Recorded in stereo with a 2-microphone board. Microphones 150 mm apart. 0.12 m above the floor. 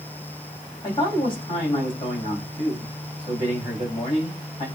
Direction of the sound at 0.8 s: 35° left (ahead or behind).